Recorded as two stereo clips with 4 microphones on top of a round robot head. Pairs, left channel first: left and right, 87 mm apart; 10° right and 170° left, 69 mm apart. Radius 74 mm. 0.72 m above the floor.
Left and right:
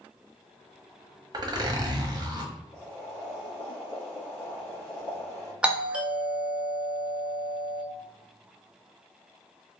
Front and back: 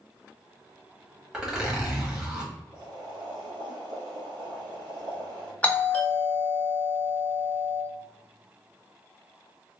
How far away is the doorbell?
About 1.0 m.